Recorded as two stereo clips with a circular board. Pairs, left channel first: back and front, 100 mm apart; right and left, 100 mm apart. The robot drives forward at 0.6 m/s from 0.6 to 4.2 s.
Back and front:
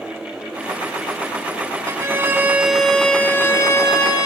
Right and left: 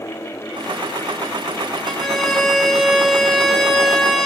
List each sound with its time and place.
1.9 s a violin: straight ahead, 1.0 m; by 4.3 s straight behind, 1.2 m